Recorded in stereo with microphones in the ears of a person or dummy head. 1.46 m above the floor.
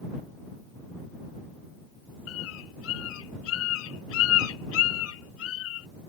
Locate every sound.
2.3 s a bird: 80° left